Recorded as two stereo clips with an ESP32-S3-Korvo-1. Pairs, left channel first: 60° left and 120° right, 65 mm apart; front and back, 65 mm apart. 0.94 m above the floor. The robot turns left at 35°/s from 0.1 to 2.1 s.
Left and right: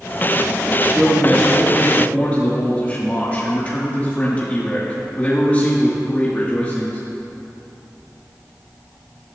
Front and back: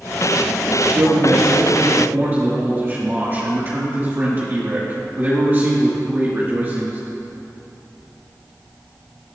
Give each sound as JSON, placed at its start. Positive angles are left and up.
{"t": 0.9, "sound": "a man speaking", "azimuth_deg": 165, "distance_m": 1.8}